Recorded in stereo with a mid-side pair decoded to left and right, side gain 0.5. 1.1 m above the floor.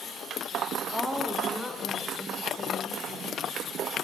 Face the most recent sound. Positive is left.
turn(degrees=20)